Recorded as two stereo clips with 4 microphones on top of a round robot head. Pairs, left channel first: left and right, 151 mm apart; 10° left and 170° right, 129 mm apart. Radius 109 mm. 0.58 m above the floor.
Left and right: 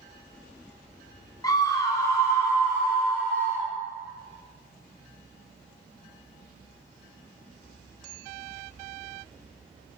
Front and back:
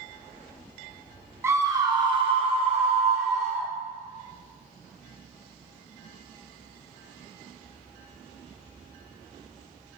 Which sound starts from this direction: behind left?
A scream, at 1.4 s.